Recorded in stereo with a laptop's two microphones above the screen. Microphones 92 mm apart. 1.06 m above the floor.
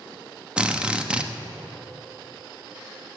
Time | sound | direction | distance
0.6 | a drill | 10° right (ahead or behind) | 1.0 m